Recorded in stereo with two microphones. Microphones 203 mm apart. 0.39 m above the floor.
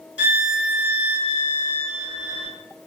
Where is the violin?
60° left (ahead or behind), 0.8 m.